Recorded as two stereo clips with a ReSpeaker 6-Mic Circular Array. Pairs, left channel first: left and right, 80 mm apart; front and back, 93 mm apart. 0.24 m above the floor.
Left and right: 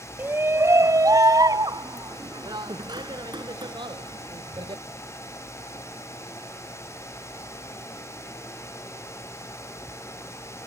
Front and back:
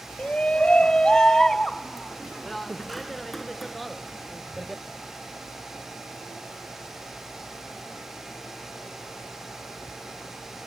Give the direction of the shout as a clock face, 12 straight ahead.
2 o'clock.